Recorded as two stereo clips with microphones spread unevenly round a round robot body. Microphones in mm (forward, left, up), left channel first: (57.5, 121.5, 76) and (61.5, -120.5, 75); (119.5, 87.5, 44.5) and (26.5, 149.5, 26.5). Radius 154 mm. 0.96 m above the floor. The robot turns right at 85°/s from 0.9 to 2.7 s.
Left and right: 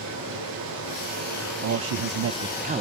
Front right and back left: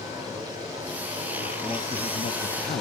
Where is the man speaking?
120° right, 0.6 m; by 2.8 s 30° right, 0.6 m.